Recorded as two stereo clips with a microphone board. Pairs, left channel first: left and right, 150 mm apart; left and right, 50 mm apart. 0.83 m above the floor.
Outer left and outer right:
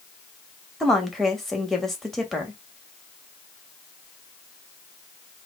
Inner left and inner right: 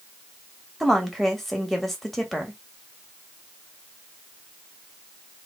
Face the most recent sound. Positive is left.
turn(degrees=0)  # may be behind; listen again after turning